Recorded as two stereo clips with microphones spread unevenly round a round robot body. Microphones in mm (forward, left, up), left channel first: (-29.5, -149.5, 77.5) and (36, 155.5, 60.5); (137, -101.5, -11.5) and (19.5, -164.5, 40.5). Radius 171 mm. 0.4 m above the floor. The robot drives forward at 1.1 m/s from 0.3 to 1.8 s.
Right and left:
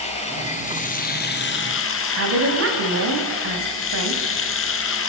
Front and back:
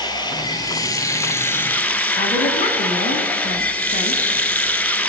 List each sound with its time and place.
0.0 s running water: 30° right, 4 m; by 5.1 s 50° right, 2.5 m
2.2 s a woman speaking: 35° left, 3.5 m